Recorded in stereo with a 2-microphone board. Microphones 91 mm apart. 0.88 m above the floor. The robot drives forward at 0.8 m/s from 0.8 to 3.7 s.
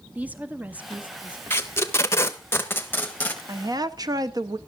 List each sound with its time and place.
0.1 s a woman speaking: 15° right (ahead or behind), 1.1 m; by 1.4 s 10° right (ahead or behind), 1.4 m
1.5 s tape being pulled: 25° left (ahead or behind), 1.0 m; by 3.4 s 20° left (ahead or behind), 1.3 m
3.5 s a woman speaking: 35° right (ahead or behind), 0.9 m; by 4.6 s 45° right (ahead or behind), 0.8 m